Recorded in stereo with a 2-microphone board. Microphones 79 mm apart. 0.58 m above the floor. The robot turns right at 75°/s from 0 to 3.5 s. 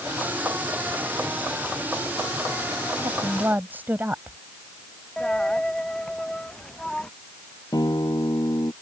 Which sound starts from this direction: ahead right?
A woman speaking, at 3.0 s.